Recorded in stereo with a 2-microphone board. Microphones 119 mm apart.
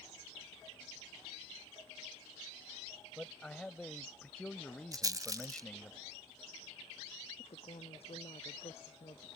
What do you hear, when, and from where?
3.2 s a man speaking: 5° left (ahead or behind)
4.9 s a rattle: 30° right (ahead or behind)
7.4 s a woman speaking: 55° left (ahead or behind)